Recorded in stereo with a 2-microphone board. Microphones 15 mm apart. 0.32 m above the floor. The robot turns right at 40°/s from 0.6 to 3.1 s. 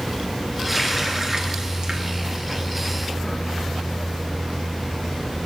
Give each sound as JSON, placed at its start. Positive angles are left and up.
{"t": 0.7, "sound": "a running tap", "side_deg": -5, "distance_m": 3.0}